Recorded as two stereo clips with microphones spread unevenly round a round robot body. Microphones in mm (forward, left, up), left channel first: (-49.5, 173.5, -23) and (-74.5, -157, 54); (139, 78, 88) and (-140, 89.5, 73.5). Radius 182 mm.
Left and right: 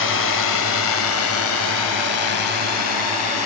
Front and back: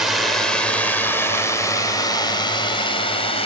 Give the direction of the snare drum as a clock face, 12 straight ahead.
I don't hear a snare drum.